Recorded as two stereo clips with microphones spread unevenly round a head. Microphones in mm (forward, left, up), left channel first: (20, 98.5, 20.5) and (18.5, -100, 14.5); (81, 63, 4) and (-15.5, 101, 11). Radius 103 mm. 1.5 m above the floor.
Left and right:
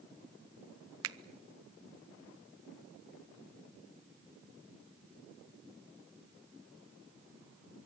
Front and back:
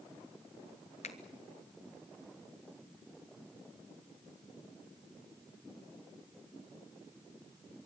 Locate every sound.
1.0 s a finger snap: 75° right, 0.8 m